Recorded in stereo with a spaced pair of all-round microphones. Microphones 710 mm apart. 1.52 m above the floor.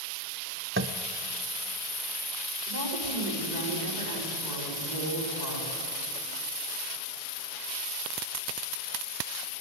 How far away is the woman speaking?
About 5 m.